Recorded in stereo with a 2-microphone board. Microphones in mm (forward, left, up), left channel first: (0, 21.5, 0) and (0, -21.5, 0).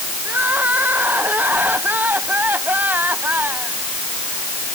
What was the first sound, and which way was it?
Crying, 45° right (ahead or behind).